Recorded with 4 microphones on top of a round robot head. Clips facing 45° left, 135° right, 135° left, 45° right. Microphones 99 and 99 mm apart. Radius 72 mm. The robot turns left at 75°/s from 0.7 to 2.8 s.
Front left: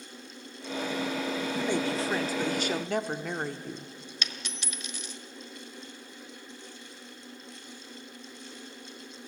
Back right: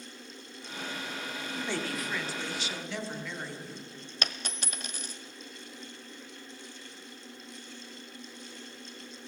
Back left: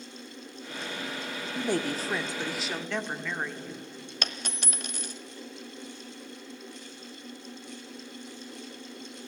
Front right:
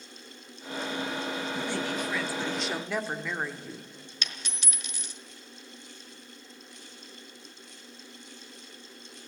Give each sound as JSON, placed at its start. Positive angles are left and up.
{"t": 1.6, "sound": "a woman speaking", "azimuth_deg": 130, "distance_m": 1.3}
{"t": 4.2, "sound": "a dropped coin", "azimuth_deg": 175, "distance_m": 1.2}